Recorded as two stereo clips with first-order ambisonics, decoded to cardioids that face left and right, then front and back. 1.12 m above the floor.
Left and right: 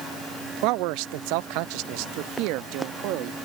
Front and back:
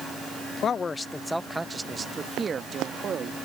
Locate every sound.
0.6 s a man speaking: 60° right; by 3.4 s 115° right